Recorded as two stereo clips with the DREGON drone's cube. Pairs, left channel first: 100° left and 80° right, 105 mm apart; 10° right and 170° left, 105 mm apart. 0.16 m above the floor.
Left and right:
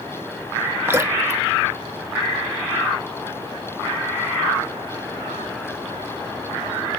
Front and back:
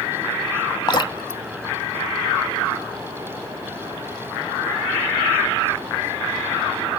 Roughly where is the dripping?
Ahead right.